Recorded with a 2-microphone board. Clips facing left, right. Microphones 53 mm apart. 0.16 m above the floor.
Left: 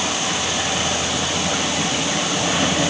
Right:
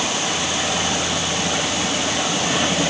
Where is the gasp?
No gasp in this recording.